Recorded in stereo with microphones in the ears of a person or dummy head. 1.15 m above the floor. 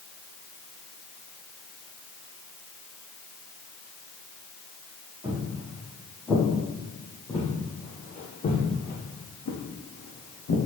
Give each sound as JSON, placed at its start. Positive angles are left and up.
{"t": 5.2, "sound": "footsteps", "side_deg": -15, "distance_m": 2.5}